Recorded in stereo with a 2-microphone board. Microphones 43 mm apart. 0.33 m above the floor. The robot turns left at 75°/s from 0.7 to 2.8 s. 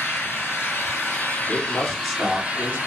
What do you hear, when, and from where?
0.0 s an engine running: 105° left, 2 m; by 2.9 s 50° right, 2 m
1.5 s a man speaking: 45° left, 1.4 m; by 2.8 s 50° right, 1.4 m